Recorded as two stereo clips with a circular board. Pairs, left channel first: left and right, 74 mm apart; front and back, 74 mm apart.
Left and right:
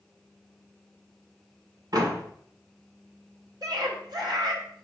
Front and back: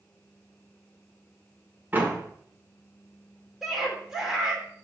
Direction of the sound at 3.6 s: 95° right.